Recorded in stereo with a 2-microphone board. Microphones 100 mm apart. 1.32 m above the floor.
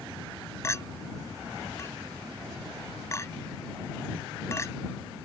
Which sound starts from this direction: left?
A clink, at 0.6 s.